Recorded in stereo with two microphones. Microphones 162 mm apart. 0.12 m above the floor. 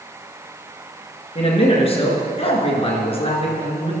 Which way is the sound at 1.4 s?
35° left (ahead or behind).